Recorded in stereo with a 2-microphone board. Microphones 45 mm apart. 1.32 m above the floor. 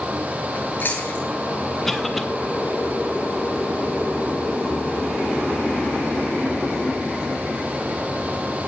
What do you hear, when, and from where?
0.6 s chewing: 50° left (ahead or behind), 9 m
1.9 s a cough: 5° left (ahead or behind), 1.8 m